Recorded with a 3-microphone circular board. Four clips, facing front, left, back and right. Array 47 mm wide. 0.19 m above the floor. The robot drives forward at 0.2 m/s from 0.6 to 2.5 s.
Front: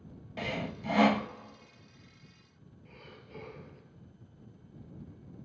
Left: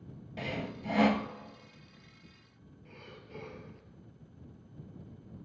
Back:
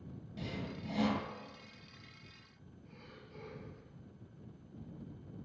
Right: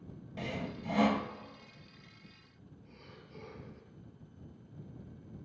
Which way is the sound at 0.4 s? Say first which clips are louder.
Left 2 dB, front 7 dB; 25° left.